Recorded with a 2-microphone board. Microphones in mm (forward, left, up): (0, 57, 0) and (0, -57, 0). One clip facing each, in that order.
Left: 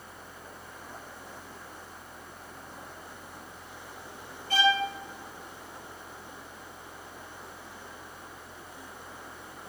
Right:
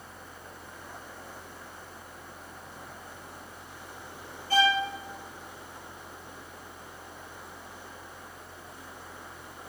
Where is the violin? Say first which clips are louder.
Right 1 dB; 35° right (ahead or behind), 3.5 m.